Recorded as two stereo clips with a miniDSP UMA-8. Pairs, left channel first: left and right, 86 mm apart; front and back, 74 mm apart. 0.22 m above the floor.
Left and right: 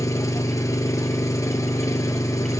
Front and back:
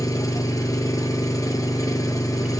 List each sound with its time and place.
0.0 s an engine running: 40° left, 1.5 m